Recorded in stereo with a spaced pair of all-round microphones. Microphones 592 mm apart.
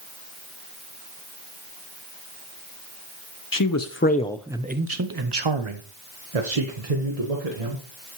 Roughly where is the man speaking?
Left.